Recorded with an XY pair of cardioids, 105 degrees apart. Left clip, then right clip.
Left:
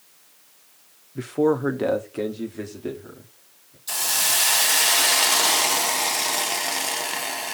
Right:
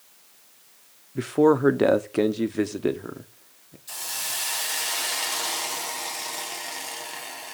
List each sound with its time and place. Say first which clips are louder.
1.1 s a man speaking: right 2 dB; 25° right, 1.1 m; by 3.8 s 70° right, 1.9 m
3.9 s a hiss: left 9 dB; 55° left, 0.7 m